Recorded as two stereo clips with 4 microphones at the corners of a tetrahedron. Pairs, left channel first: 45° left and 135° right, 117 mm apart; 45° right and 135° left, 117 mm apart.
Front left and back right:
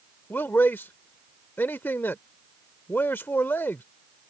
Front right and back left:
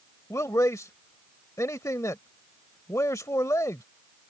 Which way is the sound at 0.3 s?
15° right.